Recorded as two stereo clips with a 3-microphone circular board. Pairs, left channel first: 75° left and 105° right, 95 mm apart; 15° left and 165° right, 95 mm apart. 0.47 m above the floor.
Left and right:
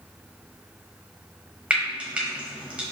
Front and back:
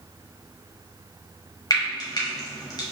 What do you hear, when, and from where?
1.7 s frying: 30° right, 1.2 m